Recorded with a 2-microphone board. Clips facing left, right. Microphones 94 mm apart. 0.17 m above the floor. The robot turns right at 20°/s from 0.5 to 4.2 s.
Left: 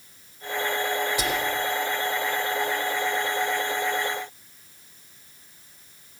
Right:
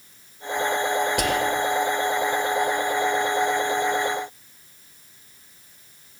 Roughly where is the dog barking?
No dog barking in this recording.